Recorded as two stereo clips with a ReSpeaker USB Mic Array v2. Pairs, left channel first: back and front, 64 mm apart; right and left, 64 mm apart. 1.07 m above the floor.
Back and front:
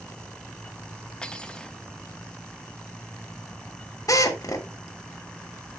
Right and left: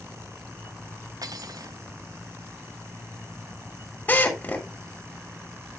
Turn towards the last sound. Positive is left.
turn(degrees=-150)